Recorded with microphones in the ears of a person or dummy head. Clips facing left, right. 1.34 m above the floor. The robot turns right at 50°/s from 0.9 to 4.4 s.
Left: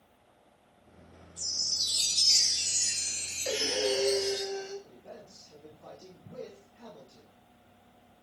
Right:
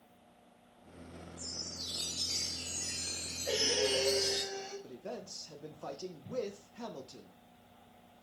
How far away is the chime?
About 0.5 m.